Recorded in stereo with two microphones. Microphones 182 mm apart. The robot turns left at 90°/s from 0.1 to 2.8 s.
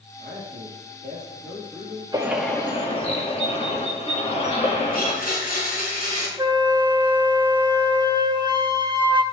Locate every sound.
0.2 s a man speaking: 55° right, 4.5 m; by 2.0 s 140° left, 4.5 m
2.1 s a bird: 155° right, 2 m; by 5.2 s 145° left, 2 m
4.9 s a blender: 50° left (ahead or behind), 4.5 m
6.4 s a flute: 25° right (ahead or behind), 1.1 m